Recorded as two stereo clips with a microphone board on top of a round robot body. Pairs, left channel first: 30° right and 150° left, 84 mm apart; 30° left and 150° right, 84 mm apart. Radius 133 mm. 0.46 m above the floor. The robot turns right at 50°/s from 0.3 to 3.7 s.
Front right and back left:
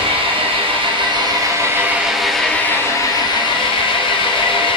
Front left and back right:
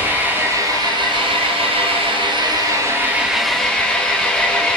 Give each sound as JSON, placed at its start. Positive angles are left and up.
{"t": 0.0, "sound": "an engine running", "azimuth_deg": 140, "distance_m": 4.0}